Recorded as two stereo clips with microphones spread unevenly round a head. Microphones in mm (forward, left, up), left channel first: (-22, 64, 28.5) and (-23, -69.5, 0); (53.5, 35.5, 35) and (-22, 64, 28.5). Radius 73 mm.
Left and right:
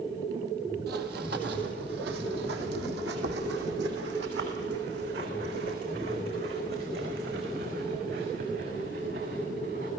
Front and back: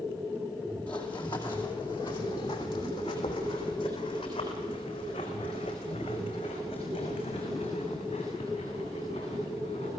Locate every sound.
0.9 s running footsteps: 100° right, 2 m; by 9.9 s 65° right, 6.5 m